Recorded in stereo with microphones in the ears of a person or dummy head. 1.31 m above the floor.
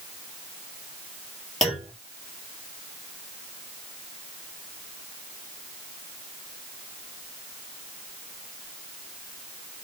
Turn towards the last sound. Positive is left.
turn(degrees=0)  # may be behind; listen again after turning